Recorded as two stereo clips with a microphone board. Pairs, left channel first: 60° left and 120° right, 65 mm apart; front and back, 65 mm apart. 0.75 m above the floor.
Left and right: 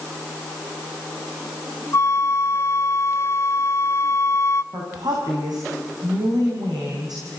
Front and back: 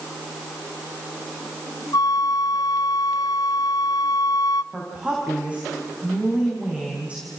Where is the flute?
15° left, 0.6 m.